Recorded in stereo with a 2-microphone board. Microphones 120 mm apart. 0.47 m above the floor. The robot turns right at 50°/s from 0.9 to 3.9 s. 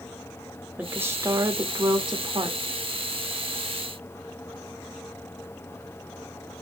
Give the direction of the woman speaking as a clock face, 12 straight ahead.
5 o'clock.